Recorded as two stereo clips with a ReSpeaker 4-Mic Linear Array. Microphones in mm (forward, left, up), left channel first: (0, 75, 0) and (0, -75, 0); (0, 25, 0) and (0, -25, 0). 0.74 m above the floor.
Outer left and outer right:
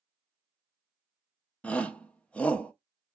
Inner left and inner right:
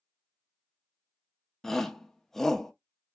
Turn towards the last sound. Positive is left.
turn(degrees=10)  # may be behind; listen again after turning